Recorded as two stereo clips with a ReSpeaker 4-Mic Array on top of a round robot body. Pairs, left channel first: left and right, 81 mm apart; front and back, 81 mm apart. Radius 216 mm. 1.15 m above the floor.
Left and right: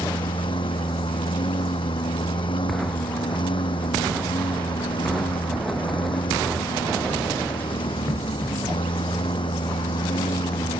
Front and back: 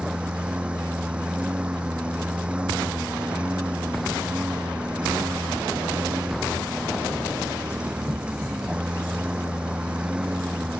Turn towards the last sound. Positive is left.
turn(degrees=100)